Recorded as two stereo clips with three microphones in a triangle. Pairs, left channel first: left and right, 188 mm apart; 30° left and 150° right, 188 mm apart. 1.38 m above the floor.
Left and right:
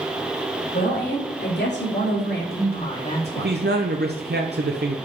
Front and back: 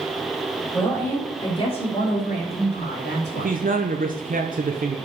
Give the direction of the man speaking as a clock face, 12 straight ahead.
4 o'clock.